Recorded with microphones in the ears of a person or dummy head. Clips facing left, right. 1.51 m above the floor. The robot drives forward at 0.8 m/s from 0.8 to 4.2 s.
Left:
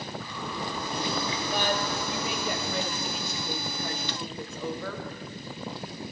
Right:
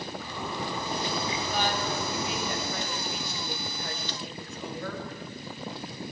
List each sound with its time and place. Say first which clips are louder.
0.2 s a zipper: right 1 dB; 20° right (ahead or behind), 4.5 m; by 2.5 s 15° right (ahead or behind), 6 m
1.5 s a woman speaking: left 1 dB; 45° left (ahead or behind), 2.5 m; by 5.1 s 75° left (ahead or behind), 2.0 m